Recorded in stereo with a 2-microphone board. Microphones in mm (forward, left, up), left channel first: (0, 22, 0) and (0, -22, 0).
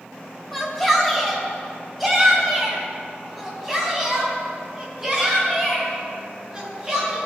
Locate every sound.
0.5 s a shout: 5° left (ahead or behind), 3 m; by 7.2 s 10° right (ahead or behind), 6.5 m